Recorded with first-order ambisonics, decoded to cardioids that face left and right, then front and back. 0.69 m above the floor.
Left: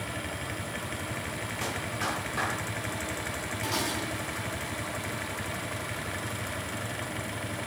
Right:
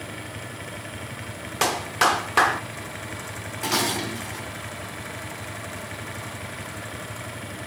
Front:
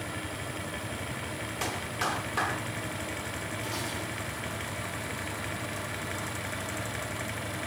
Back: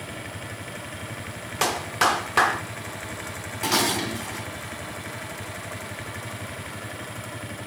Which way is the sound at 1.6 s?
125° right.